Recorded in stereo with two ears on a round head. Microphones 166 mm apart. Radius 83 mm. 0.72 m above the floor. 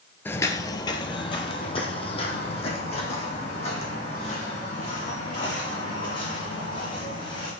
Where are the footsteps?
10° left (ahead or behind), 0.7 m; by 7.5 s 35° left (ahead or behind), 5 m.